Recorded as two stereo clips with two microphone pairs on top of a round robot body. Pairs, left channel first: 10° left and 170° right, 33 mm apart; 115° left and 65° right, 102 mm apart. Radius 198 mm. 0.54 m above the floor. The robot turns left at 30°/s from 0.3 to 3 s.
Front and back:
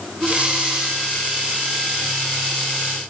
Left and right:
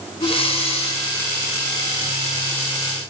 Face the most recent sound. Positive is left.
turn(degrees=60)